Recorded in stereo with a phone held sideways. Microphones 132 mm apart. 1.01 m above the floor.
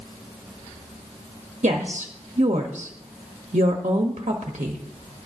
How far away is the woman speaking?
About 1.2 m.